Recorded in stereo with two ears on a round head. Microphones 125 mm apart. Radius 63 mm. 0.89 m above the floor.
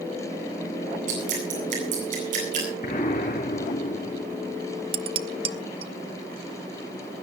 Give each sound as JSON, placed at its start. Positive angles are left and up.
{"t": 1.1, "sound": "dripping", "side_deg": -65, "distance_m": 9.0}
{"t": 2.8, "sound": "an explosion", "side_deg": 60, "distance_m": 5.5}
{"t": 4.9, "sound": "dishes clattering", "side_deg": -40, "distance_m": 0.8}